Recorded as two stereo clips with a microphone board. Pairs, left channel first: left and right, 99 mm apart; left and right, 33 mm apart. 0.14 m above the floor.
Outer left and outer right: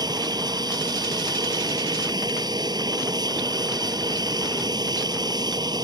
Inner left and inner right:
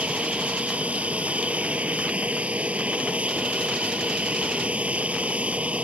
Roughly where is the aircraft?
Right.